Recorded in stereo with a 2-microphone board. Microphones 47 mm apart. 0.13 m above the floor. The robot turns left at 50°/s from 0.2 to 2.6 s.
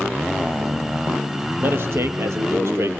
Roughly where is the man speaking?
Ahead right.